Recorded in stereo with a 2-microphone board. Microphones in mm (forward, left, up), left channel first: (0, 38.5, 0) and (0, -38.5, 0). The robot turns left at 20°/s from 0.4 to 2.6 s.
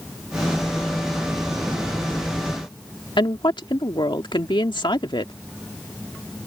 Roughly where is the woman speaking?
Left.